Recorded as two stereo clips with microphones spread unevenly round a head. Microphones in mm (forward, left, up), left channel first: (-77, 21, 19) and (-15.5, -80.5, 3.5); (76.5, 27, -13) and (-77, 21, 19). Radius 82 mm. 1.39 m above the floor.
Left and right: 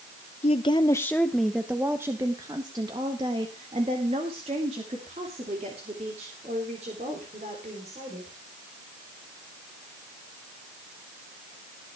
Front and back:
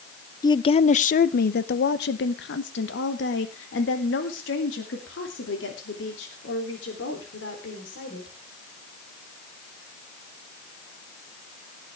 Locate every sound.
0.4 s a woman speaking: 70° left, 0.6 m; by 8.3 s 5° right, 4 m